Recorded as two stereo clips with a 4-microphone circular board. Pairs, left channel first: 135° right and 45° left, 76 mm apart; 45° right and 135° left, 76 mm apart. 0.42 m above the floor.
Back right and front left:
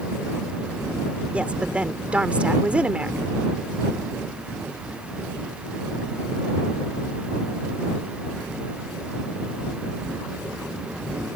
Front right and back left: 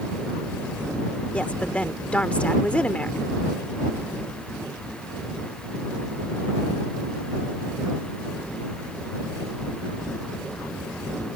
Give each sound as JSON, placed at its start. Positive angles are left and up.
{"t": 1.3, "sound": "a woman speaking", "azimuth_deg": 5}